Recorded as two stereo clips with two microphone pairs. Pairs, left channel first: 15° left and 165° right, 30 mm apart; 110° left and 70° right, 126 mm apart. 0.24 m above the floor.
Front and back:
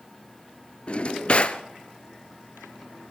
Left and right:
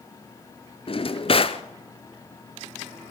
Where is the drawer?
70° left, 1.0 m.